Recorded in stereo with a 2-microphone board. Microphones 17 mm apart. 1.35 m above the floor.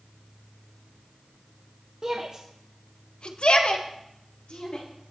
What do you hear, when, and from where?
2.0 s a shout: 60° right (ahead or behind), 1.1 m; by 4.8 s 80° left, 3 m